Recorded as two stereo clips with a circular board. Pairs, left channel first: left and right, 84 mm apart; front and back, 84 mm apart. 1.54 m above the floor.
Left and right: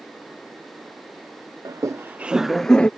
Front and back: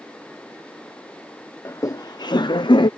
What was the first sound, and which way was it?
Laughter, 55° right.